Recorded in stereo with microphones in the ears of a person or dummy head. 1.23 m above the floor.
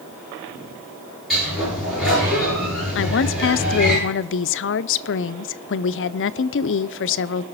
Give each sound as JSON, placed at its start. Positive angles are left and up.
{"t": 1.3, "sound": "a sliding door", "side_deg": 0, "distance_m": 9.5}
{"t": 3.0, "sound": "a woman speaking", "side_deg": 65, "distance_m": 0.5}